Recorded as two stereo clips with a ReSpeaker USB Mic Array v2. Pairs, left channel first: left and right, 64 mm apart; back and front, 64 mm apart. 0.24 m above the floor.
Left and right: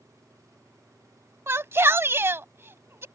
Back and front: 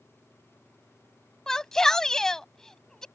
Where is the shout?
100° right.